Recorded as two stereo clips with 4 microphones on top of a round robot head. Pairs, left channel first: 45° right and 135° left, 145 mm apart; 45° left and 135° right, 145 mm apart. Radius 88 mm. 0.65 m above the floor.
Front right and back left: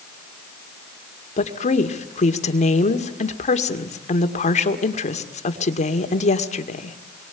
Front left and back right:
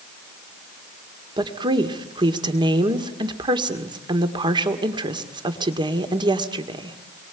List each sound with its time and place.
1.4 s a woman speaking: 80° right, 1.9 m